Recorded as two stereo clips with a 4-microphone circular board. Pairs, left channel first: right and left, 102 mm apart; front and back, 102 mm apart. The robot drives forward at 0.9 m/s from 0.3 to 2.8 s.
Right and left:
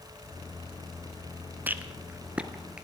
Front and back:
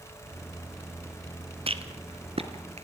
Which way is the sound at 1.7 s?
160° left.